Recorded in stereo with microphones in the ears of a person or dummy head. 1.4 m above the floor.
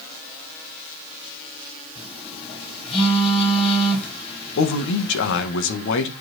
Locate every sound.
1.9 s a phone buzzing: 35° left (ahead or behind), 5 m
4.6 s a man speaking: 70° left (ahead or behind), 1.8 m